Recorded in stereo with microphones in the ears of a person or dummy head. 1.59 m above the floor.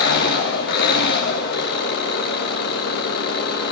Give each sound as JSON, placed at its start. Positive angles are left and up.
{"t": 0.0, "sound": "an engine running", "side_deg": 60, "distance_m": 3.5}